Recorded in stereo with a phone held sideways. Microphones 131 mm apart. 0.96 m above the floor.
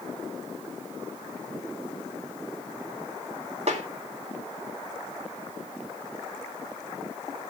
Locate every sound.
3.7 s a snare drum: 55° right (ahead or behind), 2 m